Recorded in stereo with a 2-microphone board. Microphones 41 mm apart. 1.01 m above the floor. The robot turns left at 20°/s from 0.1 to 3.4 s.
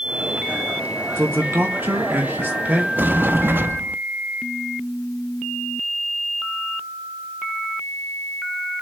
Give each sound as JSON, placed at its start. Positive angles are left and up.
{"t": 1.2, "sound": "a man speaking", "azimuth_deg": -100, "distance_m": 2.0}
{"t": 3.0, "sound": "a sliding door", "side_deg": -50, "distance_m": 0.6}